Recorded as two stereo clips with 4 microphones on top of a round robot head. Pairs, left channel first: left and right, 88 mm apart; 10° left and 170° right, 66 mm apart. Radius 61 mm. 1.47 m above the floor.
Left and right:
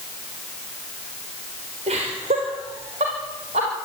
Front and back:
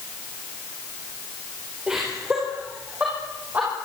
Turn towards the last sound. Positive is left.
turn(degrees=-100)